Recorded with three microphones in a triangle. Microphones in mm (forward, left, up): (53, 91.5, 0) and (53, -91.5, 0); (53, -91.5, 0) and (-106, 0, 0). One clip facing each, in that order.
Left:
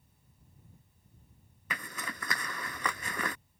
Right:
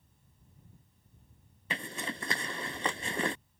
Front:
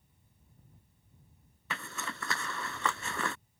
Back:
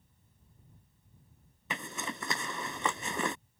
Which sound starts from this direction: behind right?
A zipper, at 1.7 s.